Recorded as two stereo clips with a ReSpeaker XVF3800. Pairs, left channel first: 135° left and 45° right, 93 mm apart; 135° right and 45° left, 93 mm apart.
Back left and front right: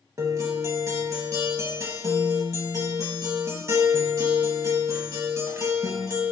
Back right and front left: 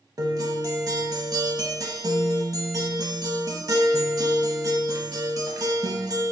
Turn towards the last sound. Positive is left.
turn(degrees=5)